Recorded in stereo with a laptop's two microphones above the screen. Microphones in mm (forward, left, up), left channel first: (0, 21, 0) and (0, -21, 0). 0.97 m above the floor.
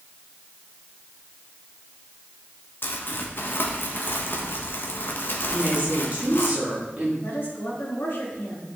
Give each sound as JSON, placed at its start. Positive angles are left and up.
{"t": 2.8, "sound": "crumpling", "side_deg": 55, "distance_m": 1.0}
{"t": 5.5, "sound": "a woman speaking", "side_deg": -35, "distance_m": 2.5}
{"t": 7.2, "sound": "a woman speaking", "side_deg": 70, "distance_m": 2.0}